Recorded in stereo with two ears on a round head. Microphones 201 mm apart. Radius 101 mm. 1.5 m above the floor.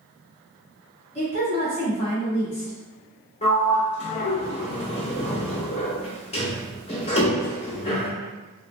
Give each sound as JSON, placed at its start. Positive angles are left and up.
{"t": 1.1, "sound": "a woman speaking", "side_deg": 30, "distance_m": 1.1}
{"t": 3.4, "sound": "a sliding door", "side_deg": 30, "distance_m": 0.8}